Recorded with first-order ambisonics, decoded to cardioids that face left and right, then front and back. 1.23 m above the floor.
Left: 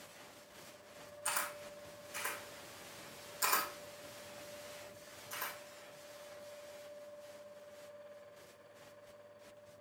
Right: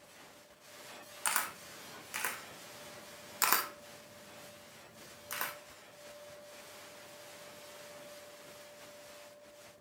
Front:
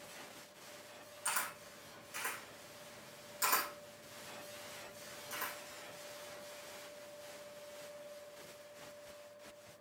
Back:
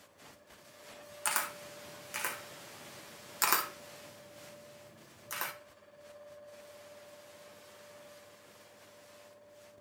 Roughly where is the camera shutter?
Behind right.